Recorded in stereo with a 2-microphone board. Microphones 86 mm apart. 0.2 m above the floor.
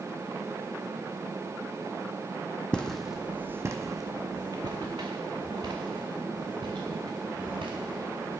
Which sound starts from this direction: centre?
Footsteps, at 2.7 s.